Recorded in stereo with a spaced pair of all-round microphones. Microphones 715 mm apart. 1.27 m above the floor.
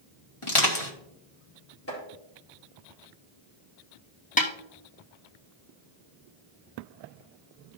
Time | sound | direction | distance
0.4 | crushing | 45° left (ahead or behind) | 1.8 m
1.9 | chopping | 20° left (ahead or behind) | 4.5 m
4.4 | a snare drum | 10° left (ahead or behind) | 1.2 m